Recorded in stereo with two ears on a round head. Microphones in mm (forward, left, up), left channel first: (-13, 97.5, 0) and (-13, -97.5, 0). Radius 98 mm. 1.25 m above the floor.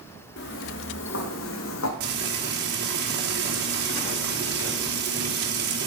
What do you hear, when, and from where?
0.4 s footsteps: 55° left (ahead or behind), 4 m; by 1.9 s 65° left (ahead or behind), 3 m
2.0 s frying: 50° right (ahead or behind), 3.5 m